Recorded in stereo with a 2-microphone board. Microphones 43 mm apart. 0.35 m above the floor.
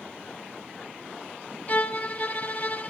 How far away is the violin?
About 0.7 m.